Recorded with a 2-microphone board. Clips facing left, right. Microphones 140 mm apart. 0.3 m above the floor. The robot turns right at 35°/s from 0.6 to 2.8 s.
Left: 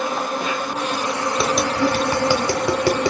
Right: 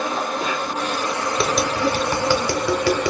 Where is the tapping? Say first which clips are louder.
Left 1 dB; centre (ahead or behind), 0.8 m; by 3.1 s 25° left (ahead or behind), 0.8 m.